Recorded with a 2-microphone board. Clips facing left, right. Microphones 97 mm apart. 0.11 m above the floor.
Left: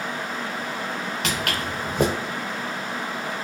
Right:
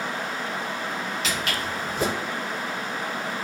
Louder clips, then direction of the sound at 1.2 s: Left 1 dB; 60° left (ahead or behind).